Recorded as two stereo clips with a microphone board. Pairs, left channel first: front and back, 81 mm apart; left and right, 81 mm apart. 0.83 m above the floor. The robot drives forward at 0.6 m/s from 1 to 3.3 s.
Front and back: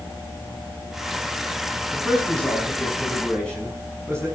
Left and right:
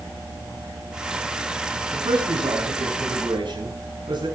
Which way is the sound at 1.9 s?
70° right.